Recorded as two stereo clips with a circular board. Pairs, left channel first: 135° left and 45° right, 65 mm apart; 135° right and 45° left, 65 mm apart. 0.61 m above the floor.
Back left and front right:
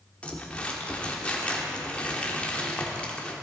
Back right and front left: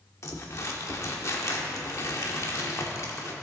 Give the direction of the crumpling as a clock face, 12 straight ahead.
5 o'clock.